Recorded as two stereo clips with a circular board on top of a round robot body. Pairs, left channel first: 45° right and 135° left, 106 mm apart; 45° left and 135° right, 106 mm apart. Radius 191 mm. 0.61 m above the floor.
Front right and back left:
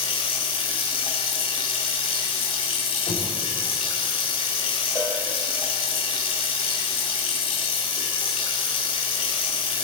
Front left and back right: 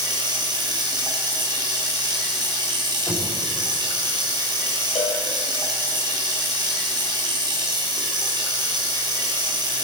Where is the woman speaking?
No woman speaking in this recording.